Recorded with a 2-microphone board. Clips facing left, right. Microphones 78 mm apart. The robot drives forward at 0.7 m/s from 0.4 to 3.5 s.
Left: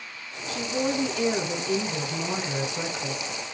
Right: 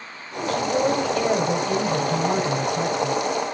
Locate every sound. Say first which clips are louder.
0.5 s a woman speaking: right 6 dB; 60° right (ahead or behind), 2.5 m